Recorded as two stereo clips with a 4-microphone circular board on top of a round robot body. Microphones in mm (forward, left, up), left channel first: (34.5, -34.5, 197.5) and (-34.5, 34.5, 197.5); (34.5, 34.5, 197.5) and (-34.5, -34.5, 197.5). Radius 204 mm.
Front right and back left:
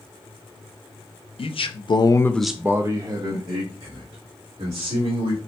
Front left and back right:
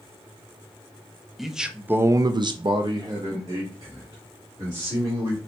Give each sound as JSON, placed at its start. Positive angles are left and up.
{"t": 1.4, "sound": "a man speaking", "azimuth_deg": -45, "distance_m": 0.8}